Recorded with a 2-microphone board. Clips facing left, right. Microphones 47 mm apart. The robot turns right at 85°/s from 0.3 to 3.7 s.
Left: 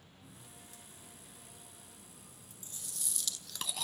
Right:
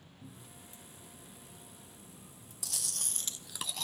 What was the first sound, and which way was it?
A cupboard door, 75° right (ahead or behind).